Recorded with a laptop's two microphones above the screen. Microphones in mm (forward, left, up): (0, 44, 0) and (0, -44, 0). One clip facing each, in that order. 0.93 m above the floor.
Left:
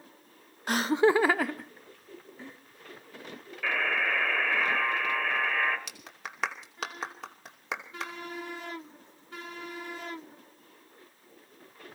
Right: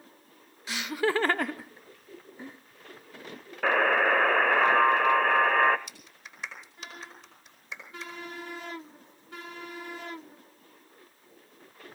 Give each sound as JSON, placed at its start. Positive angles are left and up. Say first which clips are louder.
{"t": 0.7, "sound": "laughter", "louder": "left 5 dB", "side_deg": 45, "distance_m": 0.6}
{"t": 3.6, "sound": "a buzzer", "louder": "right 7 dB", "side_deg": -45, "distance_m": 0.9}
{"t": 5.9, "sound": "a clap", "louder": "left 7 dB", "side_deg": 75, "distance_m": 2.5}